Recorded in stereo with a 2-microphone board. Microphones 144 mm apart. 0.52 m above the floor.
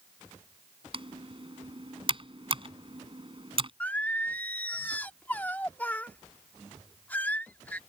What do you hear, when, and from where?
0.9 s typing on a keyboard: 40° right (ahead or behind)
3.8 s singing: 10° left (ahead or behind)